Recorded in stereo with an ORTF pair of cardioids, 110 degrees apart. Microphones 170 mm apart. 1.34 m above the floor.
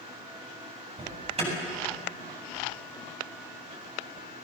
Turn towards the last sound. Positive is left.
turn(degrees=-35)